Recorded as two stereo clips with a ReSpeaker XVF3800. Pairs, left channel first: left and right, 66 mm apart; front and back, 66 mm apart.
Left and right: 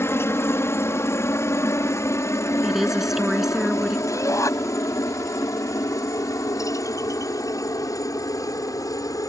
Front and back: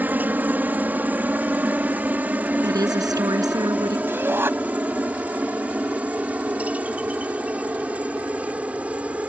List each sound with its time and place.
0.0 s a helicopter: 125° left; by 9.3 s 110° left
2.6 s a woman speaking: 175° right
4.1 s a shout: 125° left